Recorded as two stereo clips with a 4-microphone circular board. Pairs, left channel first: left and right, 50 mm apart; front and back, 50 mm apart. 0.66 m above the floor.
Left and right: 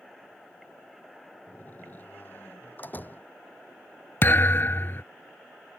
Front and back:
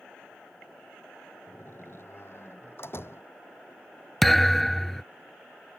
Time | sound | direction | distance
1.5 | a door slam | 35° left | ?
4.2 | a thud | 90° left | ?